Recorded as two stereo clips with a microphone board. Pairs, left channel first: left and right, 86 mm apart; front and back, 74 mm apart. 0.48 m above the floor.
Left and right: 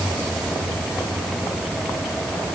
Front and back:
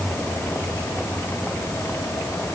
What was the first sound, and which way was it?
Only background noise.